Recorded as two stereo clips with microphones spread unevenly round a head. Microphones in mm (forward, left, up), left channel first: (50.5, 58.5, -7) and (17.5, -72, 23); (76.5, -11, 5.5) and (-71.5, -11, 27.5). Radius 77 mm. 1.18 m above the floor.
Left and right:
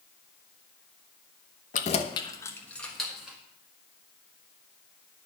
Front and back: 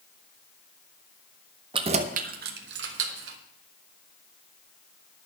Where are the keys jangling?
120° left, 0.8 m; by 3.4 s 170° left, 1.5 m.